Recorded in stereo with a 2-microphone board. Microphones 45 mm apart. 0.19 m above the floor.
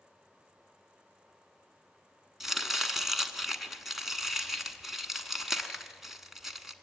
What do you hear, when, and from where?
2.4 s chopping: 5° right (ahead or behind), 1.2 m